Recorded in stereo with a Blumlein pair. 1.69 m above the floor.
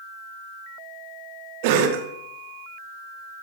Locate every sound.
1.6 s a cough: 50° right, 1.0 m